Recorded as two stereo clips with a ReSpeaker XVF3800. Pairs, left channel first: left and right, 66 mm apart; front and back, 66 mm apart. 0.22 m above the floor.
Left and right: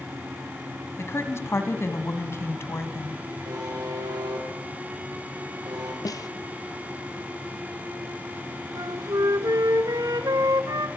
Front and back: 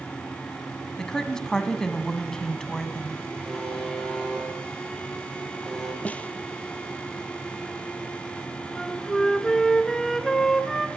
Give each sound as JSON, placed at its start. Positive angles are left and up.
{"t": 1.0, "sound": "a woman speaking", "azimuth_deg": 75, "distance_m": 1.9}
{"t": 3.5, "sound": "a buzzer", "azimuth_deg": -85, "distance_m": 7.5}
{"t": 6.0, "sound": "a snare drum", "azimuth_deg": 70, "distance_m": 0.9}
{"t": 8.8, "sound": "a flute", "azimuth_deg": -85, "distance_m": 1.3}